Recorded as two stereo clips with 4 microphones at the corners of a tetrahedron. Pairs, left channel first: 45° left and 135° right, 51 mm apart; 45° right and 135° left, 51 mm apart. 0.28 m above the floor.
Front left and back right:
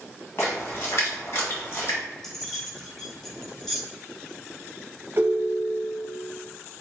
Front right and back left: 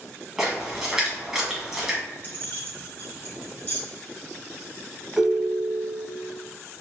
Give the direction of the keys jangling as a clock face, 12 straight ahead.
1 o'clock.